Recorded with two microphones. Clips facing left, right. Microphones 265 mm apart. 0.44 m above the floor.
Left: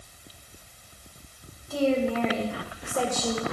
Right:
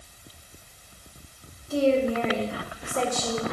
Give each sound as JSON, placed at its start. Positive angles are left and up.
{"t": 1.7, "sound": "a woman speaking", "side_deg": -30, "distance_m": 1.7}